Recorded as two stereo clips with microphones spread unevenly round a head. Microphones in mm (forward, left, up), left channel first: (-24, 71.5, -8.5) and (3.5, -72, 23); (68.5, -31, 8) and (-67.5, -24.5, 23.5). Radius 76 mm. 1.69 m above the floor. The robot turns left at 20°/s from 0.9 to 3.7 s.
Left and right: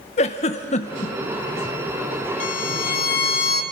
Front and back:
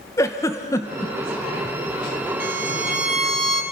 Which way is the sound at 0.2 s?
65° left.